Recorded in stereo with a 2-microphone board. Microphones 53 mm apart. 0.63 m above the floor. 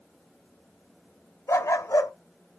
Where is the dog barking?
70° left (ahead or behind), 1.0 m.